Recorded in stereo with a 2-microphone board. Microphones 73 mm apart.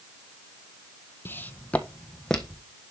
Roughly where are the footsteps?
Left.